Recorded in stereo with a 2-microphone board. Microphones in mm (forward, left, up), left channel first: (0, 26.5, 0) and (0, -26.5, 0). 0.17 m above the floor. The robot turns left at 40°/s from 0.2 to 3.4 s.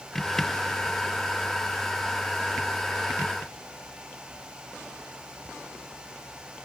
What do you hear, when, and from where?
Only background noise.